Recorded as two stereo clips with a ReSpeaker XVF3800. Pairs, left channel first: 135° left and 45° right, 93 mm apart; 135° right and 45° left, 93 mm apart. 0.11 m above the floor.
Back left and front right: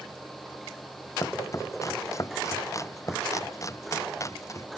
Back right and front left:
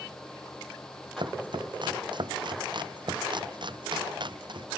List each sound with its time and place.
1.2 s chopping: 80° left